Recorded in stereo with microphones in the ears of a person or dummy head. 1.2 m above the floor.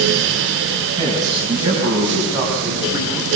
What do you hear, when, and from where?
1.0 s a man speaking: 25° right (ahead or behind), 10 m; by 3.4 s 20° right (ahead or behind), 8 m